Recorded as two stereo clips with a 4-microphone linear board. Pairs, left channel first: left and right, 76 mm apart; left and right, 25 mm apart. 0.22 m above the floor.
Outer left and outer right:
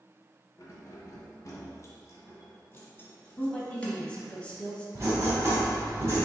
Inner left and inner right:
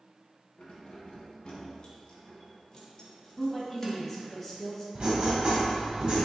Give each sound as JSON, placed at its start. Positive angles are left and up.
{"t": 0.6, "sound": "keys jangling", "side_deg": 45, "distance_m": 1.4}
{"t": 3.4, "sound": "a woman speaking", "side_deg": 15, "distance_m": 1.1}
{"t": 5.0, "sound": "writing", "side_deg": -35, "distance_m": 2.0}